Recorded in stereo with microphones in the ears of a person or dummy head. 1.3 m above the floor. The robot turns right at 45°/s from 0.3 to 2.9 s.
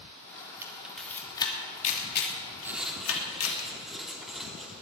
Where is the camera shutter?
15° right (ahead or behind), 3 m; by 3.6 s 85° left, 3 m.